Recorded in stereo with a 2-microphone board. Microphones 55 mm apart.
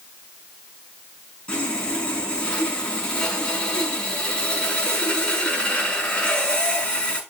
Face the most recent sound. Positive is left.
turn(degrees=20)  # may be behind; listen again after turning